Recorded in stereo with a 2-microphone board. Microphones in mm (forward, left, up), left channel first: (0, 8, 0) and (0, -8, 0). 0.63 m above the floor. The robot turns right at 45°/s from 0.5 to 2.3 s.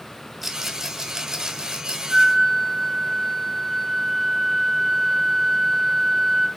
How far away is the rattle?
About 2 m.